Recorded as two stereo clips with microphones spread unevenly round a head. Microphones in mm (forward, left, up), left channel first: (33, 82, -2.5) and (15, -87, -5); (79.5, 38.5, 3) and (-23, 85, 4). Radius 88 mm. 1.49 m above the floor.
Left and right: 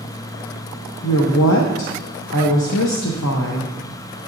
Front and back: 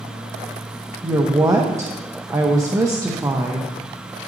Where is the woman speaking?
90° left, 1.0 m.